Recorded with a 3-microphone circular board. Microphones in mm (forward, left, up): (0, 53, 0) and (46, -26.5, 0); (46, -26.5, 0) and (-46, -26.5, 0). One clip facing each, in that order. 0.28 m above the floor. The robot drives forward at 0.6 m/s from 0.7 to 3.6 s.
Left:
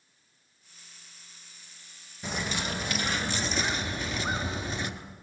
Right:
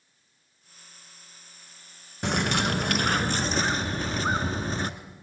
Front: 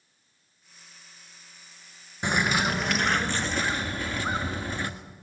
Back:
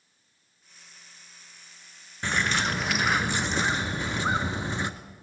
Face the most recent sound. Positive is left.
turn(degrees=-110)